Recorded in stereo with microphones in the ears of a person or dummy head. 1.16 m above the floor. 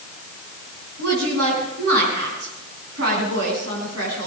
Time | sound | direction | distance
1.0 | a woman speaking | 90° right | 9 m